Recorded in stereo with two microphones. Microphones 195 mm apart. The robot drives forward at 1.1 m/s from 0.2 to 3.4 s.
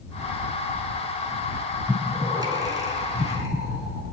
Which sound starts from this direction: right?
Breathing, at 1.9 s.